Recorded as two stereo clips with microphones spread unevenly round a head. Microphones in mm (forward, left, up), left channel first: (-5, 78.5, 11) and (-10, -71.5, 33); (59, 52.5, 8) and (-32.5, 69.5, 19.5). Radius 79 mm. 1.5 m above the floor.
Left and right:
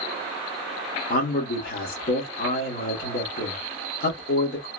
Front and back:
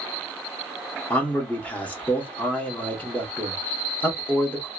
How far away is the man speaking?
About 1.3 m.